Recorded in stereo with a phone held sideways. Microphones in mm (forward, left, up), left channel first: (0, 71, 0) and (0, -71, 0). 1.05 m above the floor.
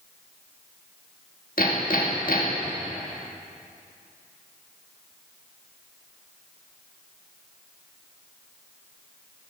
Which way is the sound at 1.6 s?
80° left.